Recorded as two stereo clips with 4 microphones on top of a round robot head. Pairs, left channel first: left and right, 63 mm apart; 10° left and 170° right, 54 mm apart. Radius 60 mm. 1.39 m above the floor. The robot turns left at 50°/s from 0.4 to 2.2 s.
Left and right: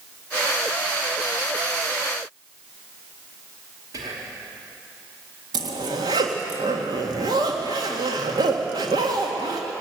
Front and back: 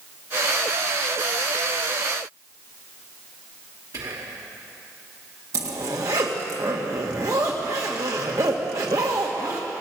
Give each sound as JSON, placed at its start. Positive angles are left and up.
{"t": 3.9, "sound": "whispering", "azimuth_deg": -135, "distance_m": 3.0}
{"t": 5.5, "sound": "a zipper", "azimuth_deg": -125, "distance_m": 1.8}